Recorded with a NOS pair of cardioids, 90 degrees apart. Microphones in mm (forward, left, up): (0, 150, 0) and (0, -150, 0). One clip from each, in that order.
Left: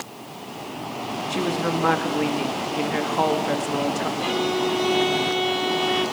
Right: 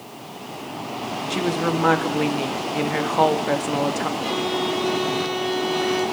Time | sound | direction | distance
1.3 | a woman speaking | 15° right | 2 m
4.2 | a violin | 45° left | 7 m